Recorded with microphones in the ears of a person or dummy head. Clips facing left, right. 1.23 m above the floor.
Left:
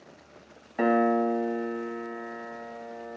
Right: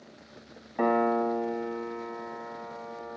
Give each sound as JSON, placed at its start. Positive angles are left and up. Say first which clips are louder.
{"t": 0.8, "sound": "a piano", "louder": "left 2 dB", "side_deg": 5, "distance_m": 0.7}